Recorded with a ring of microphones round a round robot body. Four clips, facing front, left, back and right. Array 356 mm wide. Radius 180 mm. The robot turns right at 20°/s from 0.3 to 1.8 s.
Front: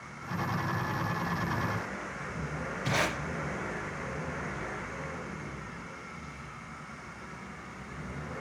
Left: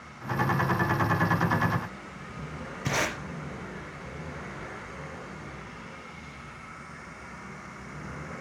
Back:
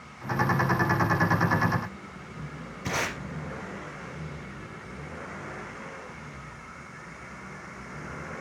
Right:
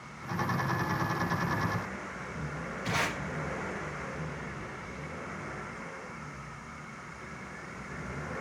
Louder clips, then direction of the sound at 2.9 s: Left 3 dB, even; 115° left.